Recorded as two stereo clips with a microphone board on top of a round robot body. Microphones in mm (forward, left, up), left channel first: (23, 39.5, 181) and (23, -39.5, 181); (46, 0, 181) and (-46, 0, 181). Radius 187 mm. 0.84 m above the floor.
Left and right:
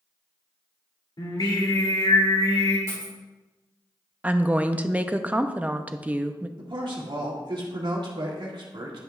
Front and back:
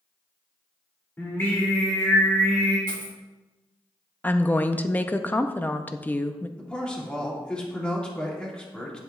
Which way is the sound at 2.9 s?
40° left.